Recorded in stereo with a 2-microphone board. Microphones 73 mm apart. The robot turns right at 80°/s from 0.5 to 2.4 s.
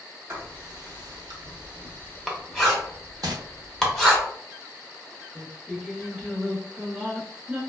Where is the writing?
30° right (ahead or behind), 0.7 m; by 4.2 s 5° left (ahead or behind), 0.7 m.